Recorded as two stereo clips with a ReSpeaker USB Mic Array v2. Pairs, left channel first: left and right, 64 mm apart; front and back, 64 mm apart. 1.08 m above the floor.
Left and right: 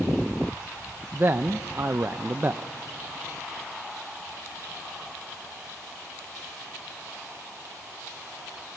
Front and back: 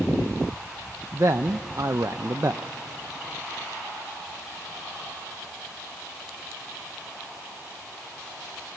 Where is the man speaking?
140° right, 0.5 m.